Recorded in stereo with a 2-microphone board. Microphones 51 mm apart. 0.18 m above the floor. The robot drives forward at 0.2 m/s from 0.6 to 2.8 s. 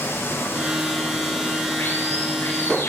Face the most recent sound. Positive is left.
turn(degrees=50)  # may be behind; listen again after turning